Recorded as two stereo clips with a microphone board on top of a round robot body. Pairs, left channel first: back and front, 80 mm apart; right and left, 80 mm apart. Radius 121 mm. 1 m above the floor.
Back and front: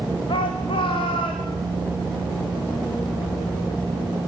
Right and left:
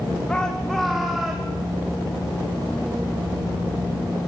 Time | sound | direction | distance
0.3 | a shout | 165° right | 2.5 m